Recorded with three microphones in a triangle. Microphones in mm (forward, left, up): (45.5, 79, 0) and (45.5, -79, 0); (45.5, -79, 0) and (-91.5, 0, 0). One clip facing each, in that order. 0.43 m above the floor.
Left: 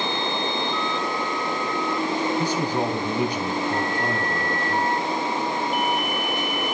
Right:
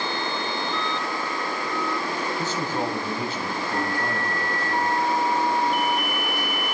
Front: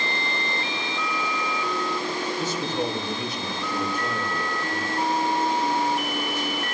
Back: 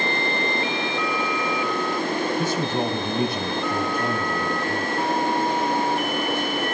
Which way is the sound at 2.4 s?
165° left.